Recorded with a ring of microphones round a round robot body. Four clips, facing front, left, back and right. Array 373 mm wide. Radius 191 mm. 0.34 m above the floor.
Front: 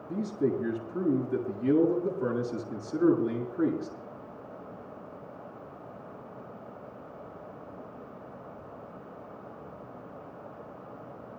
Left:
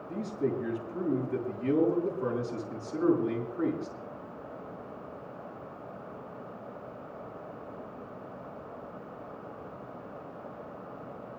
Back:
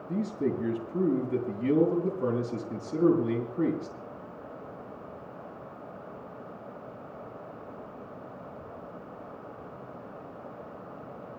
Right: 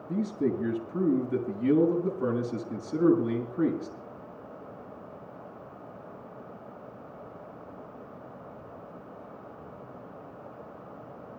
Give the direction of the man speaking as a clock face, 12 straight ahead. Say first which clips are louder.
Right 3 dB, front 1 dB; 4 o'clock.